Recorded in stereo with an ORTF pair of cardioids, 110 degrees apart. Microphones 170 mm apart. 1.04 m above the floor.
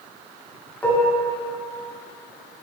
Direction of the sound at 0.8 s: 10° left.